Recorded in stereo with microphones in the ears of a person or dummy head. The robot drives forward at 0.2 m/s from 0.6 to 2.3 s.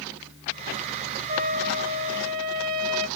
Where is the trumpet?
45° right (ahead or behind), 1.5 m.